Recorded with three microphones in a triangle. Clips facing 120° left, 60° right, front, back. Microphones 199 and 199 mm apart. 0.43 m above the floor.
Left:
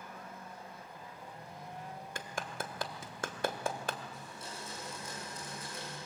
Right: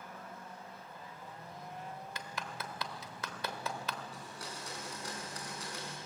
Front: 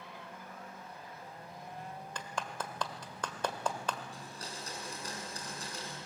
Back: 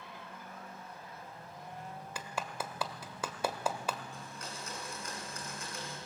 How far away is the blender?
About 5.5 m.